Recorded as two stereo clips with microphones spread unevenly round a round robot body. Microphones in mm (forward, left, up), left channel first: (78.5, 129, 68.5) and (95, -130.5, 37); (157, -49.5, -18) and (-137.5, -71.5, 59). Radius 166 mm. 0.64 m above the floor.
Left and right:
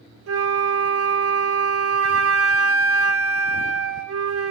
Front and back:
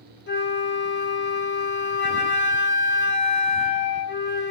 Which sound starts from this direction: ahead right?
A flute, at 0.3 s.